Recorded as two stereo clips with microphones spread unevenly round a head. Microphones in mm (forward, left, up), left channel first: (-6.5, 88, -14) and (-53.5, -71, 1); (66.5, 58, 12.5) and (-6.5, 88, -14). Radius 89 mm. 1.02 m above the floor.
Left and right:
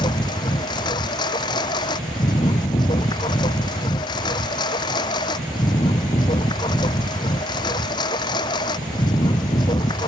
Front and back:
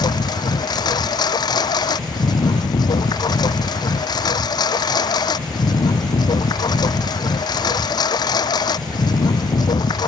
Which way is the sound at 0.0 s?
5° left.